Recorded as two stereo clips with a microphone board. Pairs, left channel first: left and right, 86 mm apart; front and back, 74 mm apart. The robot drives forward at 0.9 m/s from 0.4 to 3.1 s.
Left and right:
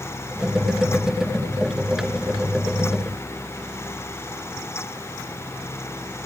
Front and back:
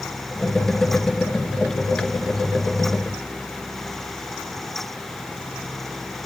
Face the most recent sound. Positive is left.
No sound to turn to.